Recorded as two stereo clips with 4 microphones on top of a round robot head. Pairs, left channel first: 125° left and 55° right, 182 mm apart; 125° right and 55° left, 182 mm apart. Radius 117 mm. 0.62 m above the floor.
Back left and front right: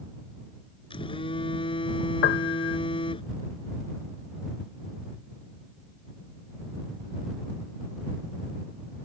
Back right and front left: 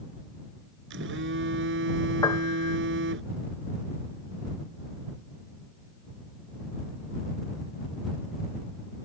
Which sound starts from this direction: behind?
A piano, at 2.2 s.